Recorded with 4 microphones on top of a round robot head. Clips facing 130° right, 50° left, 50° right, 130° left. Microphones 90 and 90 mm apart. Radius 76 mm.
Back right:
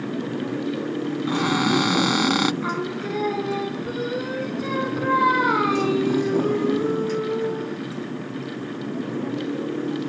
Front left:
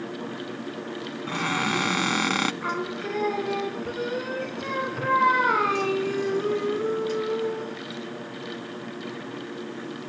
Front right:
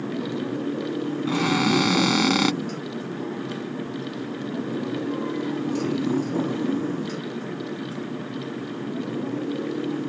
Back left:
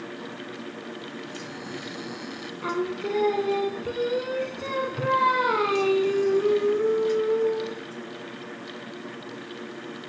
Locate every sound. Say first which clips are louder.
0.0 s a motorcycle: back right 6 dB, front right 9 dB; 85° right
1.3 s a cupboard door: back right 5 dB, front right 15 dB; 55° right
2.6 s singing: back right 3 dB, back left 3 dB; 145° left